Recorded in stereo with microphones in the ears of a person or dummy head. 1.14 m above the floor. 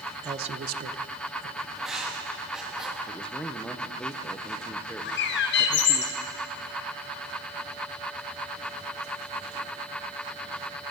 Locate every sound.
0.2 s a man speaking: 20° right (ahead or behind), 0.8 m; by 1.6 s 60° right (ahead or behind), 1.5 m
1.8 s writing: 5° right (ahead or behind), 1.9 m
3.1 s a man speaking: 5° left (ahead or behind), 0.8 m
5.0 s a bird: 50° left (ahead or behind), 0.7 m